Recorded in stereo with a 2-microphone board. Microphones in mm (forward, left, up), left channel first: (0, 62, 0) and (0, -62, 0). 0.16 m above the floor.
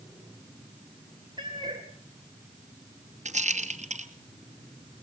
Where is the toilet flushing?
I don't hear a toilet flushing.